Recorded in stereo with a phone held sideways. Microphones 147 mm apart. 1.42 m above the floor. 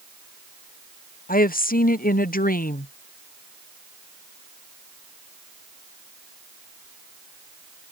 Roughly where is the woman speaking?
Left.